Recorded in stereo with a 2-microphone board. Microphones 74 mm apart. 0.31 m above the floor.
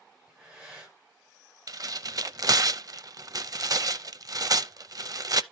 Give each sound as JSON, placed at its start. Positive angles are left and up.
{"t": 0.3, "sound": "breathing", "side_deg": -5, "distance_m": 8.0}
{"t": 1.7, "sound": "tearing paper", "side_deg": -55, "distance_m": 0.5}